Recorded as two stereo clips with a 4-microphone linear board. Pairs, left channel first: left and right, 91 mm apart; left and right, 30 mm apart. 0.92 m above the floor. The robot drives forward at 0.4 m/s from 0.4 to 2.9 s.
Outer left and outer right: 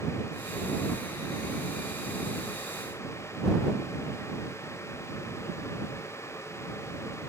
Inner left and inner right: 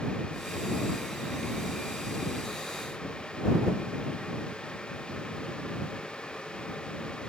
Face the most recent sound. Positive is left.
No sound to turn to.